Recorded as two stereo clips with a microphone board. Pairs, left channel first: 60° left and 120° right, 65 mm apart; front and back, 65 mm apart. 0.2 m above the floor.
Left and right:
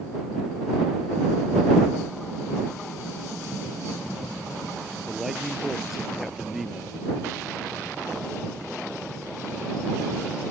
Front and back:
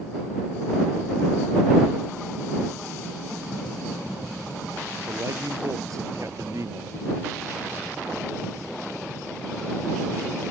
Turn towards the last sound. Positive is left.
turn(degrees=155)